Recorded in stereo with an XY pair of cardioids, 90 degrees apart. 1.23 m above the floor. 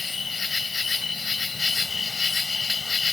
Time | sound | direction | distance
0.0 | an insect | 40° left | ?